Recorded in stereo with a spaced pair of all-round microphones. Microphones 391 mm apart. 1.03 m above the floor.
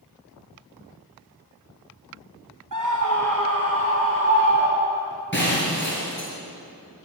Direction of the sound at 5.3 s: 30° left (ahead or behind).